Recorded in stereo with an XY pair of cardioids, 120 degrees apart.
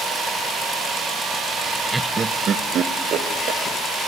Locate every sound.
1.9 s laughter: 5° right, 0.9 m; by 3.6 s 65° right, 3 m